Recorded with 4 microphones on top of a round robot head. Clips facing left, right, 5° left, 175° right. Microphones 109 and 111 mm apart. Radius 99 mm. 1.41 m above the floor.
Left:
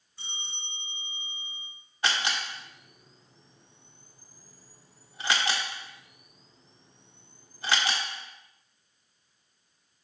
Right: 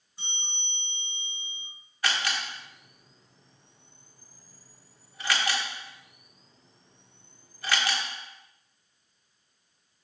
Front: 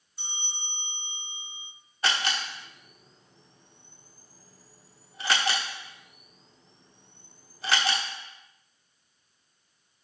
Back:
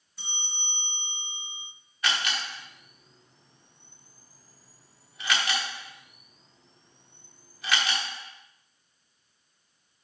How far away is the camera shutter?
About 1.1 m.